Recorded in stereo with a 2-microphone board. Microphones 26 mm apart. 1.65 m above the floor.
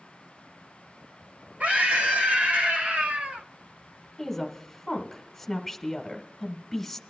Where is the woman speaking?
10° left (ahead or behind), 1.5 m.